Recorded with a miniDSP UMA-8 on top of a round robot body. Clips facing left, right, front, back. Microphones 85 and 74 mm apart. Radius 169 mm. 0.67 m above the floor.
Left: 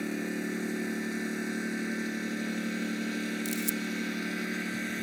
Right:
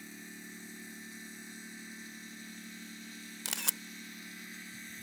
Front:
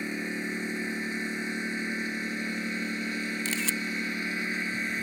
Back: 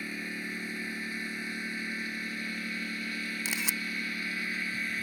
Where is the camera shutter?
105° right.